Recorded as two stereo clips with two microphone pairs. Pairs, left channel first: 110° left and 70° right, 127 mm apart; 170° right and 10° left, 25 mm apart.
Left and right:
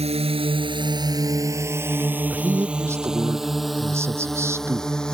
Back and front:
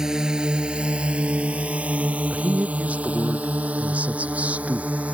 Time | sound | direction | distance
0.0 | a drone | 50° right | ?
2.3 | a man speaking | straight ahead | ?